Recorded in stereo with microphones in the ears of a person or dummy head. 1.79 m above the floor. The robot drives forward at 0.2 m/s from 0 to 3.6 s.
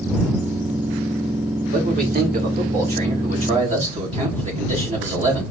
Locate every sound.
1.7 s a man speaking: 45° right (ahead or behind), 1.3 m; by 5.4 s 35° right (ahead or behind), 1.6 m